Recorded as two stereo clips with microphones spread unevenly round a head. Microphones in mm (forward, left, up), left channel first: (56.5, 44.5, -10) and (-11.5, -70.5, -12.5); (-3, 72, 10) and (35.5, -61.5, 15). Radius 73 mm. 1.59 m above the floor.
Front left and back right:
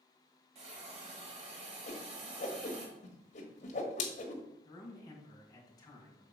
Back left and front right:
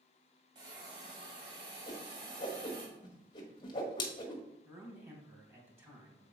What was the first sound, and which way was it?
A hiss, 125° right.